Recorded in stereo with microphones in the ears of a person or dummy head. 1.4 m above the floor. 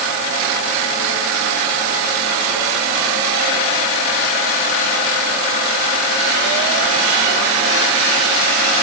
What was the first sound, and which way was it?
Only background noise.